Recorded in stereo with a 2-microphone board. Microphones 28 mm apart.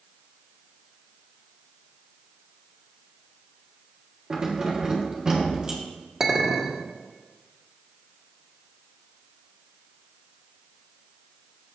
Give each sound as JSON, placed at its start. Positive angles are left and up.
{"t": 4.3, "sound": "keys jangling", "side_deg": -25, "distance_m": 1.4}
{"t": 6.2, "sound": "a clink", "side_deg": -20, "distance_m": 1.5}